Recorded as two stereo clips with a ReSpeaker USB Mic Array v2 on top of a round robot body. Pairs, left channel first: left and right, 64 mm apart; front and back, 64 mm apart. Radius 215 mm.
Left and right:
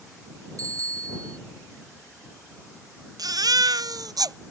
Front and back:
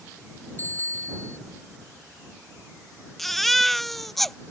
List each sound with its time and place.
0.6 s a bicycle bell: 60° right
3.2 s a baby crying: 85° right